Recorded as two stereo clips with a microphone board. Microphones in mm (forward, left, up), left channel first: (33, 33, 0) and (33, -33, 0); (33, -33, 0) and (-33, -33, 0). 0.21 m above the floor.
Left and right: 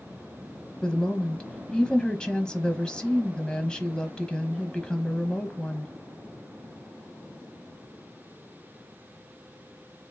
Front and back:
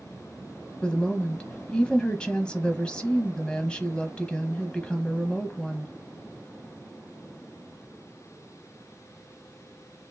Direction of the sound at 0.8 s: 40° left.